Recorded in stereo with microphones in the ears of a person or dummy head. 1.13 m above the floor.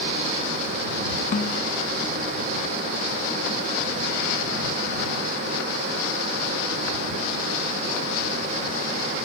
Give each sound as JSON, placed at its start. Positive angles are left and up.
{"t": 1.3, "sound": "a snare drum", "side_deg": 45}